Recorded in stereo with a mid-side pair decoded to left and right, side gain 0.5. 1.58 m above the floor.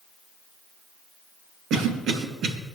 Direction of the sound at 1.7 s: 65° right.